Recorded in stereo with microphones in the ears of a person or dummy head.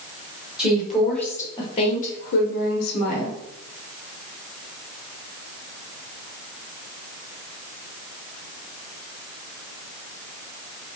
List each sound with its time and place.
0.6 s a woman speaking: 5° right (ahead or behind), 1.3 m; by 3.4 s 80° left, 1.1 m